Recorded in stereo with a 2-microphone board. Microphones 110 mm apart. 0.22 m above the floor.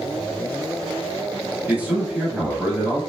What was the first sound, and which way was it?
A man speaking, 15° right (ahead or behind).